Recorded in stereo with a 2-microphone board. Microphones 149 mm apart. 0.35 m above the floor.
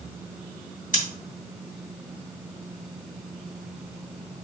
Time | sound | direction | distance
0.9 | scissors | 65° left (ahead or behind) | 3 m